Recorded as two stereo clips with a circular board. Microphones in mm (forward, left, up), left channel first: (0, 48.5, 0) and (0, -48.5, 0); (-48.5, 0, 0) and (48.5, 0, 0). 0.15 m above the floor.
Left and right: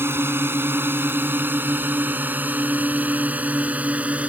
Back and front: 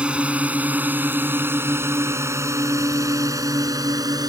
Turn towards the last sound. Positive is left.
turn(degrees=-20)